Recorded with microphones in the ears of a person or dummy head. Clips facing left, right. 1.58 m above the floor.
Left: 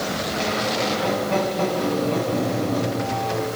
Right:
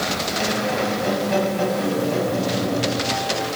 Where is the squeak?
15° right (ahead or behind), 7 m.